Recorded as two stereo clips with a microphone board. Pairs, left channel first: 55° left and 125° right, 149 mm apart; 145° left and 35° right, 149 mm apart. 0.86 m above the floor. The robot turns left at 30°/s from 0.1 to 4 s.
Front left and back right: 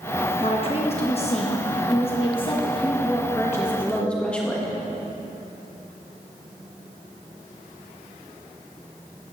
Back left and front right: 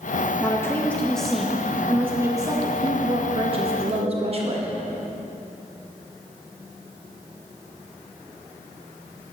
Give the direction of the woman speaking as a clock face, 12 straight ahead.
9 o'clock.